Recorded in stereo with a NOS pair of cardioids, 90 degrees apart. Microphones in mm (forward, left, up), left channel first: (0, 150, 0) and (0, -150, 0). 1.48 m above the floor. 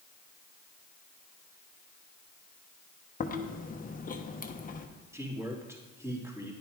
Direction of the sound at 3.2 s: 25° left.